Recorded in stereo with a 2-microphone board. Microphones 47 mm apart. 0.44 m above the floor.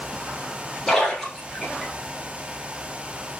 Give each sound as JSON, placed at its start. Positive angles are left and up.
{"t": 0.9, "sound": "a splash", "side_deg": 10, "distance_m": 2.5}